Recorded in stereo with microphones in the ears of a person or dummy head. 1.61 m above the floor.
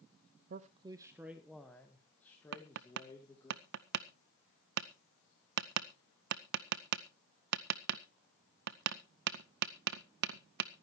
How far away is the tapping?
About 0.5 m.